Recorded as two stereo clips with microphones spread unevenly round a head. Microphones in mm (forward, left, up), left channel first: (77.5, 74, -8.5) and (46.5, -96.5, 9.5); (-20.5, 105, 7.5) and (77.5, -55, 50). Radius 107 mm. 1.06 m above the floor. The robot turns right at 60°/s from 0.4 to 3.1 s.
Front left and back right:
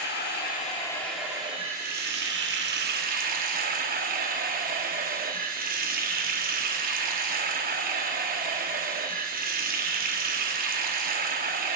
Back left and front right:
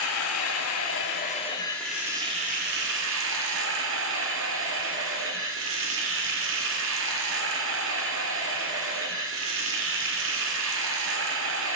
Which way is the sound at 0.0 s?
125° left.